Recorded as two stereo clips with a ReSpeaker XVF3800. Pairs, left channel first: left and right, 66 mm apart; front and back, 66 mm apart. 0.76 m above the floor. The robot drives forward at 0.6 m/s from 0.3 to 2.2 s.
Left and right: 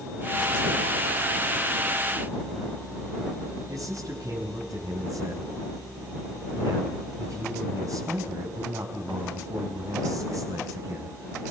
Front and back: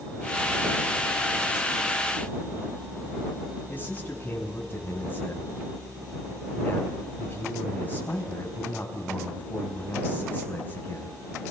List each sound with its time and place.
3.7 s a man speaking: 60° right, 4.5 m